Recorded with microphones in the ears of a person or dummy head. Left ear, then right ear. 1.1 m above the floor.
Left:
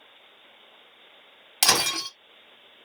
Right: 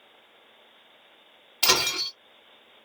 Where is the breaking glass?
55° left (ahead or behind), 1.7 m.